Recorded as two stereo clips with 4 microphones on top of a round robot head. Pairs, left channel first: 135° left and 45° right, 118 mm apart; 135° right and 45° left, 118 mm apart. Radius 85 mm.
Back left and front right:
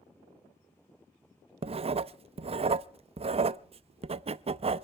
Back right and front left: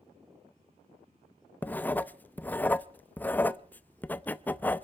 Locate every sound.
1.6 s writing: 60° right, 0.6 m